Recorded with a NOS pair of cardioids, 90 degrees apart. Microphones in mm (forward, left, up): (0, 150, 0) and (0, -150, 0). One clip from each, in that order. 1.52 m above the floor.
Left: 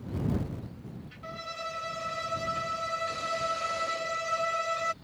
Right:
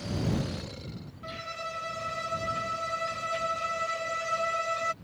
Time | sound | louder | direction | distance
1.2 | a violin | right 1 dB | 5° left | ?